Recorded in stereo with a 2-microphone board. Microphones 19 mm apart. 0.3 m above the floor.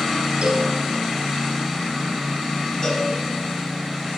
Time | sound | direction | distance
0.4 | a cowbell | 55° right (ahead or behind) | 1.0 m
2.8 | a cowbell | 50° left (ahead or behind) | 3 m